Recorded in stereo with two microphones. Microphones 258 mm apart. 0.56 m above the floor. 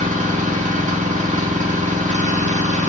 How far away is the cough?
I don't hear a cough.